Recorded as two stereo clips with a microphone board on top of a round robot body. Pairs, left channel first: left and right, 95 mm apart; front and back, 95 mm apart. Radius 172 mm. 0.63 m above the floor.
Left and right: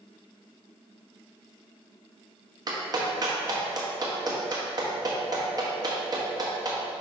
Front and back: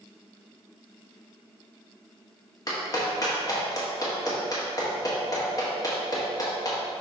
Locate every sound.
2.7 s a clap: 50° right, 1.5 m